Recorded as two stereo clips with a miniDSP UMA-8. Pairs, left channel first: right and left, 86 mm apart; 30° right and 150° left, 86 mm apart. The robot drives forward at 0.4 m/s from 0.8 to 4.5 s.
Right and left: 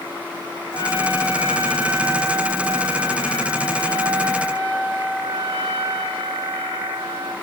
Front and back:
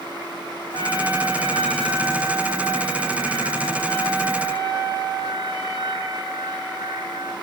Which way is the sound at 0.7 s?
130° left.